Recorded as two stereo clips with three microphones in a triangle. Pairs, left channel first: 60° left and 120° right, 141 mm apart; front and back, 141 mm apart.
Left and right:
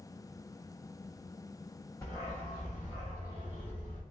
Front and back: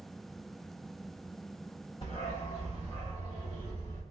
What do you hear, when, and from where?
2.0 s a dog barking: straight ahead, 1.9 m; by 4.0 s 50° left, 1.6 m